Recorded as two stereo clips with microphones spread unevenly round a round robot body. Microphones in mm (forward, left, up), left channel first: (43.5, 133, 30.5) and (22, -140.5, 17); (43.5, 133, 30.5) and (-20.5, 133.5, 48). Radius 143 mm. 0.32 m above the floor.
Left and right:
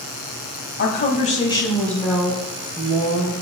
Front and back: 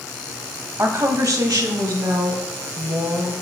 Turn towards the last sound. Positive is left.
turn(degrees=-170)